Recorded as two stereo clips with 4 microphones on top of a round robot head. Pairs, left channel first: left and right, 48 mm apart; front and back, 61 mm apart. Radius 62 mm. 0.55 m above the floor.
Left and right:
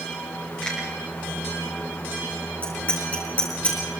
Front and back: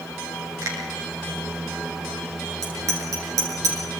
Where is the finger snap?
165° left, 7 m.